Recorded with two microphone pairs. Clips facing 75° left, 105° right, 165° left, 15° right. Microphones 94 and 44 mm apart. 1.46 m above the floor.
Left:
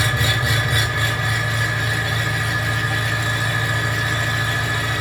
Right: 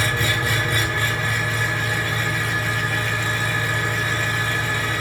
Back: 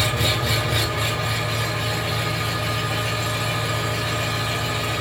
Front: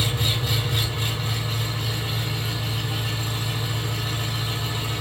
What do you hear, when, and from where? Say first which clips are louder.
0.0 s an engine running: left 1 dB, back 4 dB; 150° left, 8.5 m